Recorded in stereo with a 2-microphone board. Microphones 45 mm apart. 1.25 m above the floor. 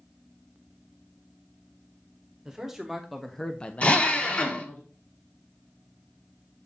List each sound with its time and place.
2.5 s a man speaking: 10° right (ahead or behind), 1.5 m; by 4.8 s 40° left (ahead or behind), 1.1 m
3.8 s a drill: 35° left (ahead or behind), 0.9 m